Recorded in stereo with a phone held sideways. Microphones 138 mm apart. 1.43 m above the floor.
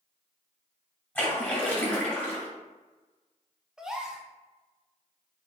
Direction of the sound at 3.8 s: 5° right (ahead or behind).